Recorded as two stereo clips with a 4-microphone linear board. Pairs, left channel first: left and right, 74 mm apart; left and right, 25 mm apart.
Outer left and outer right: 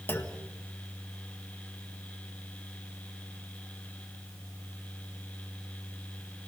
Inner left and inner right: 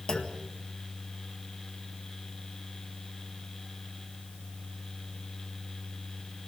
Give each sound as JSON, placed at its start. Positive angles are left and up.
{"t": 0.1, "sound": "a clunk", "side_deg": 30, "distance_m": 1.7}